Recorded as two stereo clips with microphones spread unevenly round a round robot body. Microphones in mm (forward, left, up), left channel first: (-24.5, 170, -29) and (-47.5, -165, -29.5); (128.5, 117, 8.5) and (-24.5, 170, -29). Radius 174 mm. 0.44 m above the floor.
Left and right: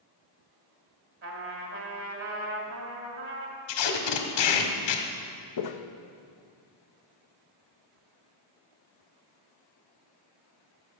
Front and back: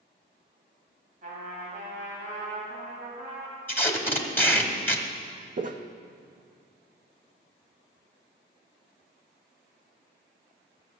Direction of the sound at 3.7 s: 65° left.